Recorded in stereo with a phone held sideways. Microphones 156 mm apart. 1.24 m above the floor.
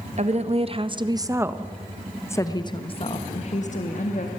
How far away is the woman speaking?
About 1.6 m.